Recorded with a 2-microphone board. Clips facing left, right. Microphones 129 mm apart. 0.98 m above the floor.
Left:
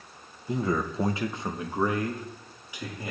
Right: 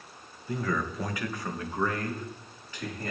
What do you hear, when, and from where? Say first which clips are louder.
0.5 s a man speaking: left 3 dB; 20° left (ahead or behind), 0.6 m; by 3.1 s 10° left (ahead or behind), 1.8 m